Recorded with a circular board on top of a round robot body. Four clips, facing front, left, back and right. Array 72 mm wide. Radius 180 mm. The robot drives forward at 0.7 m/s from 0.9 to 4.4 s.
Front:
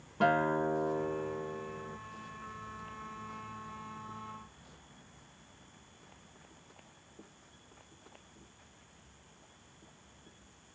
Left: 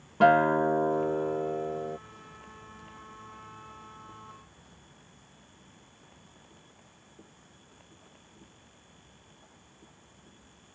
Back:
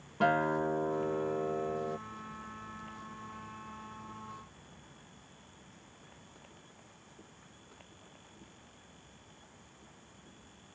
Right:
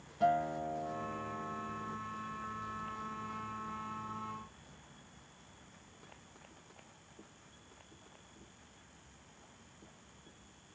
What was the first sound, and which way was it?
A guitar, 90° left.